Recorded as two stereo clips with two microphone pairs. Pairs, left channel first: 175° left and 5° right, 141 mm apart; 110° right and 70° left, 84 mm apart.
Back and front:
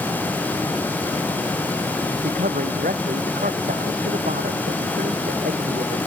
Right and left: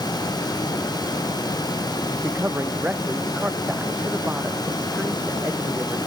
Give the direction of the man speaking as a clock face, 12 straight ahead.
12 o'clock.